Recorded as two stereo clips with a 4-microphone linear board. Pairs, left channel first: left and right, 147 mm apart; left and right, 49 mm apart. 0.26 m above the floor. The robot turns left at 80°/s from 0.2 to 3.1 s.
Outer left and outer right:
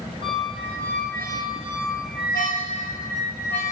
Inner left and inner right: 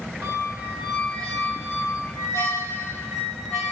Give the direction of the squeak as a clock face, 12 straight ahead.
4 o'clock.